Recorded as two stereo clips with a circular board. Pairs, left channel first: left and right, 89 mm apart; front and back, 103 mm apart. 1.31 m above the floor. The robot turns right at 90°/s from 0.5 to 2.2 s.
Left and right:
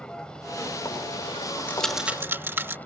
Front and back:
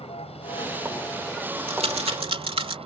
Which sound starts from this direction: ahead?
A vehicle, at 0.0 s.